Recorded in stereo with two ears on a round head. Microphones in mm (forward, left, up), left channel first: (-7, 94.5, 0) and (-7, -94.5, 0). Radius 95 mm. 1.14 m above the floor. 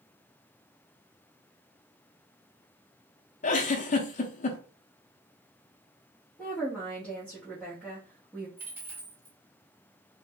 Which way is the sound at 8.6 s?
10° right (ahead or behind).